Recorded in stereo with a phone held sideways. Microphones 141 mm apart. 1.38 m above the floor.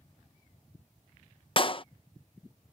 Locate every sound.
1.6 s a clap: 40° left (ahead or behind)